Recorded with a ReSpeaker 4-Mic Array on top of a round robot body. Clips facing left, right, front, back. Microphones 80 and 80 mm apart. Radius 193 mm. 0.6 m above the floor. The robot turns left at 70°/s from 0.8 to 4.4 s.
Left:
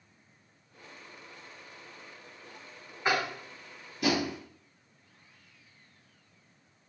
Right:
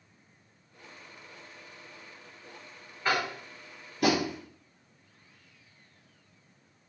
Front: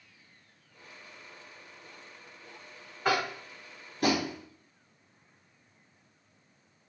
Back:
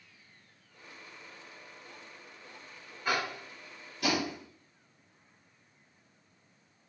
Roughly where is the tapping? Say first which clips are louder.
Even, front 4 dB; ahead.